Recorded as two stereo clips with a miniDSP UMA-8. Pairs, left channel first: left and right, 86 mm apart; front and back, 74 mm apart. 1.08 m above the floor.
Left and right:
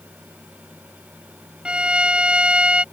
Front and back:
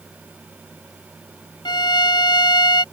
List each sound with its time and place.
1.6 s a violin: 10° right